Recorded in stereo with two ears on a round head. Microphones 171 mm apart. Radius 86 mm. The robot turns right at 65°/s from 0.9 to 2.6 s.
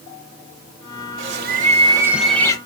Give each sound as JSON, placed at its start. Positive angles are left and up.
{"t": 1.2, "sound": "a bird", "azimuth_deg": -70, "distance_m": 0.7}